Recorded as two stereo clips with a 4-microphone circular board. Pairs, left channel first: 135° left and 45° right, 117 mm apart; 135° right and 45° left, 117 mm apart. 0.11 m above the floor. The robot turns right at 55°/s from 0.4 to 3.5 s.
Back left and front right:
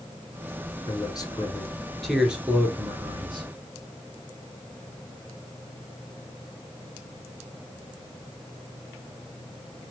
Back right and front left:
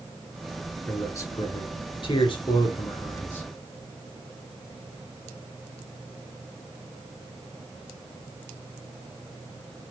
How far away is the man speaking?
About 1.9 m.